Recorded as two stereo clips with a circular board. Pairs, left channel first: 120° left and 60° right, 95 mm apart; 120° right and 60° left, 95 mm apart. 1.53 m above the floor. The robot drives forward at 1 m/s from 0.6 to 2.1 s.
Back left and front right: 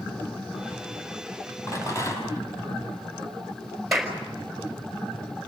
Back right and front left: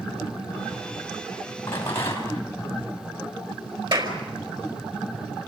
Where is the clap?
30° left, 5 m.